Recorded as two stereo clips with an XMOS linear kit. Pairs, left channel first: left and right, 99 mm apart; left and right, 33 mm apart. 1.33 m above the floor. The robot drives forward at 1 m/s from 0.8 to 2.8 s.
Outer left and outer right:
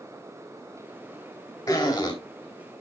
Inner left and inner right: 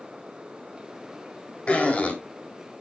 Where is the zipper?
45° left (ahead or behind), 2.5 m; by 2.1 s 50° left (ahead or behind), 2.5 m.